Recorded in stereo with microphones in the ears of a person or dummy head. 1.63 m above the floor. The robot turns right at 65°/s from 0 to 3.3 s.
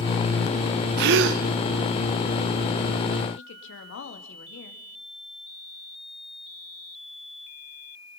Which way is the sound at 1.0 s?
115° right.